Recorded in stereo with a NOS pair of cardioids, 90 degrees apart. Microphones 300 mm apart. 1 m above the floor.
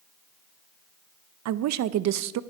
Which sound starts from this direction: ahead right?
A woman speaking, at 1.4 s.